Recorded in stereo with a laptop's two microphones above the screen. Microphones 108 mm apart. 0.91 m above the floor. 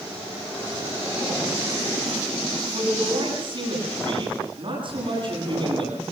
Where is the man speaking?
50° right (ahead or behind), 9.5 m.